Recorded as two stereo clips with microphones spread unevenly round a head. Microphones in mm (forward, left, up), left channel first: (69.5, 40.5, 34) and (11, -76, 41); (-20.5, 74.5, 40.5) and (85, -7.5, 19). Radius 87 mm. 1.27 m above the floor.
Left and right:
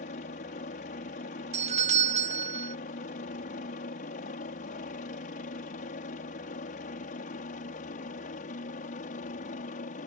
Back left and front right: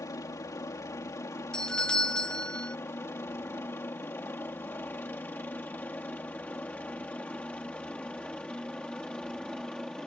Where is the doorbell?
125° right.